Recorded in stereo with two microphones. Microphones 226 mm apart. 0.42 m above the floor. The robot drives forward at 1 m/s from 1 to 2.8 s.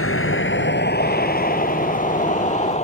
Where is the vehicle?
70° left (ahead or behind); by 2.8 s 30° left (ahead or behind).